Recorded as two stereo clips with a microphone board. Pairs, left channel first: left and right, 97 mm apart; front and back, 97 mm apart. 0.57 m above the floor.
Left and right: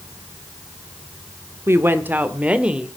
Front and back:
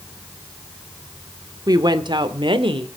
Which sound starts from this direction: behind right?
A woman speaking, at 1.7 s.